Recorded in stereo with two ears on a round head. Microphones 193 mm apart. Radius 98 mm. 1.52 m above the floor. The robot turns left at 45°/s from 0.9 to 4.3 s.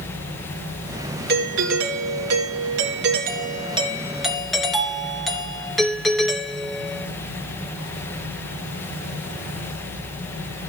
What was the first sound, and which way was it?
A doorbell, 45° right.